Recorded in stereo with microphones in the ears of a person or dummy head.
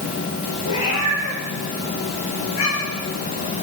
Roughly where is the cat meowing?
Left.